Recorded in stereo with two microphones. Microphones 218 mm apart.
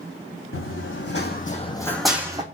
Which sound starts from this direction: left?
Running footsteps, at 0.5 s.